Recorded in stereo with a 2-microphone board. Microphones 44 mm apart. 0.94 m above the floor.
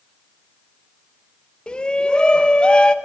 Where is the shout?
20° left (ahead or behind), 0.8 m.